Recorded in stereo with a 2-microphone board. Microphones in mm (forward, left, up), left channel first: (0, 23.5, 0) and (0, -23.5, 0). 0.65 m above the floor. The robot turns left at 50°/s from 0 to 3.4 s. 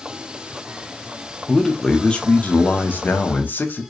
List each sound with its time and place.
1.5 s a man speaking: straight behind, 1.0 m; by 3.8 s 85° left, 1.0 m